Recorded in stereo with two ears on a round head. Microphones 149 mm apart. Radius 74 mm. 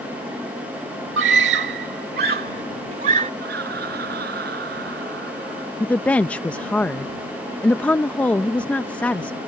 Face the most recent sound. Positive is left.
turn(degrees=10)  # may be behind; listen again after turning